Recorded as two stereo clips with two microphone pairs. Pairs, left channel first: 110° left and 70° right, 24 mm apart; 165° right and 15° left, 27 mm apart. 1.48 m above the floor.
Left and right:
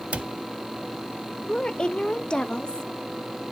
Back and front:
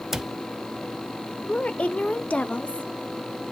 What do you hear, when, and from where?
0.1 s a cupboard door: 65° right, 0.5 m
1.5 s a woman speaking: 160° left, 0.7 m